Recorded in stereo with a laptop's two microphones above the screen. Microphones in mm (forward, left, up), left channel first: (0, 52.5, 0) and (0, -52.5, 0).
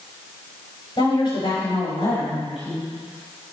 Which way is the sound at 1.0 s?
55° left (ahead or behind).